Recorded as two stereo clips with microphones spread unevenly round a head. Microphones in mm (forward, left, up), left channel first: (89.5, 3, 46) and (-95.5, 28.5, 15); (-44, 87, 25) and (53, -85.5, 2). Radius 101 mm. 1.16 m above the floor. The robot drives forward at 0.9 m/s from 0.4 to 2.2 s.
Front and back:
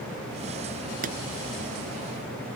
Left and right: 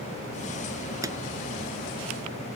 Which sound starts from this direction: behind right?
A pop, at 1.0 s.